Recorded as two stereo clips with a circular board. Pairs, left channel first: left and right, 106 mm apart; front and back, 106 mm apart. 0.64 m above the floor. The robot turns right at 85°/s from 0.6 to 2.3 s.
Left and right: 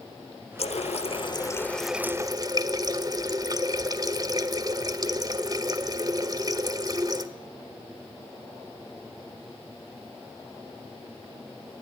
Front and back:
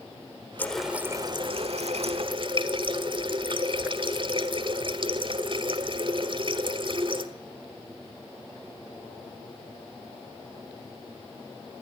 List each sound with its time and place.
0.6 s a running tap: 70° left, 1.3 m; by 7.3 s 145° right, 1.3 m